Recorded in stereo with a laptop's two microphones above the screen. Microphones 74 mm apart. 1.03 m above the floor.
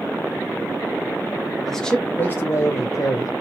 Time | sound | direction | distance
1.7 | a man speaking | centre (ahead or behind) | 0.7 m